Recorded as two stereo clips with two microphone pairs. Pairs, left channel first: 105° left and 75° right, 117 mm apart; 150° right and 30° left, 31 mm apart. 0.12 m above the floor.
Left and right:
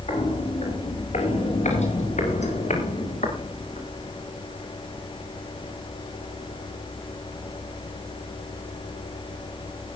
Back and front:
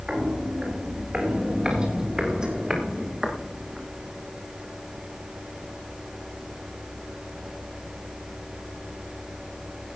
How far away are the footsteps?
About 8 m.